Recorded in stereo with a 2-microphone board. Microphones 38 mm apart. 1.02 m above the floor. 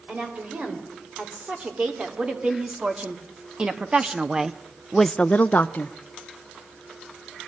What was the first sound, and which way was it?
A woman speaking, 35° right (ahead or behind).